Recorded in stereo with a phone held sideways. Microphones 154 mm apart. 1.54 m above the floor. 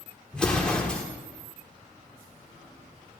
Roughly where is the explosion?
Centre.